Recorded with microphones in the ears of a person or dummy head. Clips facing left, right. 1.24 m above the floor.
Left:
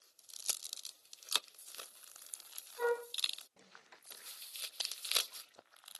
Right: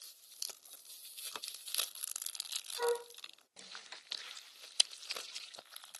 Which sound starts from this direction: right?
A flute, at 2.8 s.